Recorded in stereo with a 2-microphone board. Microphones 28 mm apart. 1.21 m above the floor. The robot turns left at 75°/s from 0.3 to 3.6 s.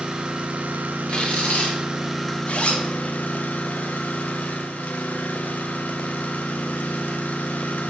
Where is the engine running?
30° right, 1.0 m; by 7.9 s 85° left, 1.0 m.